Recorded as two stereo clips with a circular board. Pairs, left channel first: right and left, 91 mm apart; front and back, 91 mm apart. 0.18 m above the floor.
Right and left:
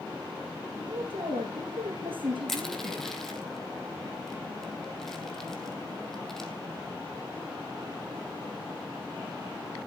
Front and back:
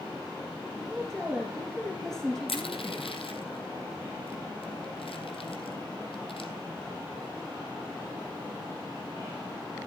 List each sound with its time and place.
0.8 s a woman speaking: 85° left, 4.5 m
2.5 s crushing: 5° right, 2.5 m